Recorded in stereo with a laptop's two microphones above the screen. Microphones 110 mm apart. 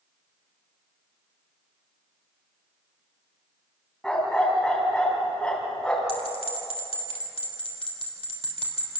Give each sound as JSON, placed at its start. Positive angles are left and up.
{"t": 4.0, "sound": "a dog barking", "side_deg": 5, "distance_m": 3.5}
{"t": 6.1, "sound": "a bell", "side_deg": 60, "distance_m": 4.0}